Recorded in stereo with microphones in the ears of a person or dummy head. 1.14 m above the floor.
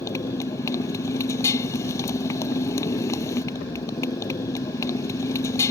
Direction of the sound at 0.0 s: 20° left (ahead or behind).